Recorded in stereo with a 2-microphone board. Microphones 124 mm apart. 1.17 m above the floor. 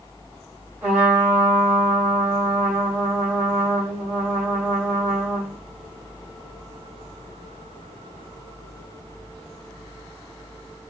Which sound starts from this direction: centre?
A trumpet, at 0.8 s.